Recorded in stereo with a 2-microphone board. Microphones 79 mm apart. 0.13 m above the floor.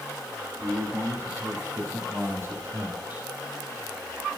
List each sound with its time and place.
0.6 s a man speaking: 40° right (ahead or behind), 5 m; by 3.3 s 20° right (ahead or behind), 3 m